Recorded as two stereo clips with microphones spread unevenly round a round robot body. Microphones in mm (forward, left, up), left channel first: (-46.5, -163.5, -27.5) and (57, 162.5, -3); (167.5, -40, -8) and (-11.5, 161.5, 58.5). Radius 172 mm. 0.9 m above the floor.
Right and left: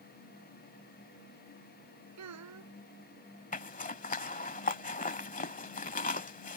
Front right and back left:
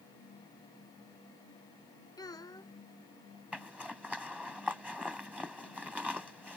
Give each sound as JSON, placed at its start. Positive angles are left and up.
{"t": 2.2, "sound": "a child speaking", "azimuth_deg": 30}
{"t": 3.5, "sound": "a zipper", "azimuth_deg": -165}